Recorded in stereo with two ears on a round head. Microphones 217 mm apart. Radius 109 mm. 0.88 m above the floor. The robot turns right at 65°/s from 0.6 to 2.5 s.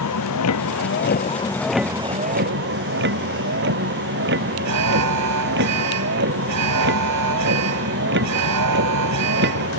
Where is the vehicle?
105° left; by 9.8 s 130° right.